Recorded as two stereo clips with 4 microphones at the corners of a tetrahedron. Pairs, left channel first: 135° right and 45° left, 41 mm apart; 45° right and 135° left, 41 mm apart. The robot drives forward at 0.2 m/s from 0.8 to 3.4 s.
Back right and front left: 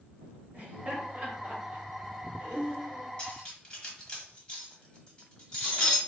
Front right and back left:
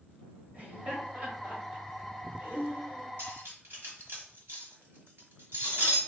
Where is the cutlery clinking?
155° left, 1.5 m; by 6.0 s 160° left, 1.6 m.